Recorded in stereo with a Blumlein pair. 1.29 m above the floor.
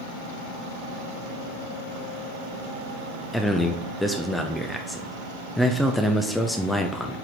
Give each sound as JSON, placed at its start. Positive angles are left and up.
{"t": 3.3, "sound": "a man speaking", "azimuth_deg": 5, "distance_m": 0.7}